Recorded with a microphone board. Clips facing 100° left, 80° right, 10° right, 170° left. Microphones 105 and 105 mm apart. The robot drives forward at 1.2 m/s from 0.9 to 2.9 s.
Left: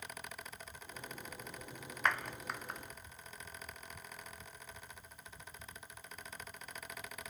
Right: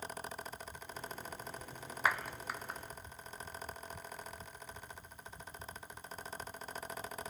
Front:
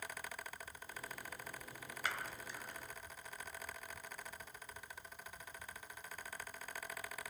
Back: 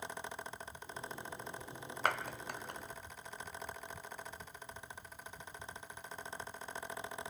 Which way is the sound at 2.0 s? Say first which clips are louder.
Right 1 dB, back 8 dB; 160° right.